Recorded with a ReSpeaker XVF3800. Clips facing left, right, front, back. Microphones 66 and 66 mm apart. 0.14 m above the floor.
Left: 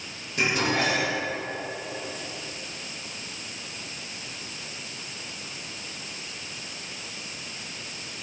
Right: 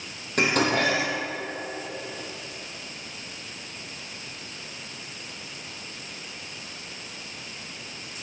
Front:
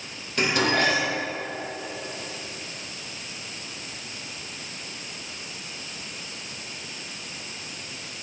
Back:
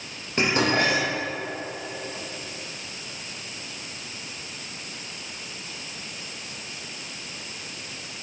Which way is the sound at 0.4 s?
120° right.